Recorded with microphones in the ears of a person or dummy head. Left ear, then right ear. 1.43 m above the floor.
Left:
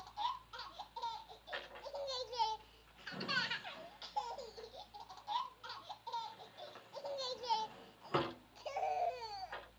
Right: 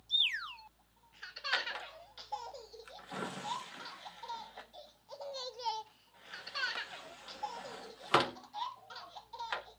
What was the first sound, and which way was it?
A drawer, 50° right (ahead or behind).